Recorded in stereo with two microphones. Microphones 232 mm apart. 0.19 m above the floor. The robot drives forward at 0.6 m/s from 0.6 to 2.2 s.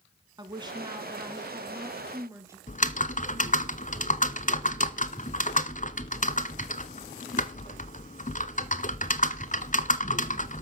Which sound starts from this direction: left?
Typing on a keyboard, at 2.7 s.